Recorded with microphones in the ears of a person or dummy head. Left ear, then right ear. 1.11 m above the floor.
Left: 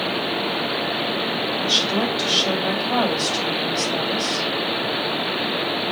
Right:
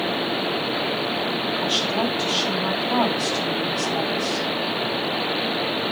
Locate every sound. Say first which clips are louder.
1.6 s a woman speaking: left 3 dB; 30° left (ahead or behind), 5.5 m